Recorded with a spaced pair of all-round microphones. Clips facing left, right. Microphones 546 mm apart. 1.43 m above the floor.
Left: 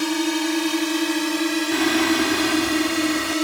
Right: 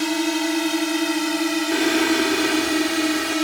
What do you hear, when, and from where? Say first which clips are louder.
0.0 s a drone: even; 5° right (ahead or behind); by 3.5 s 15° right (ahead or behind)
1.7 s singing: right 1 dB; 25° left (ahead or behind)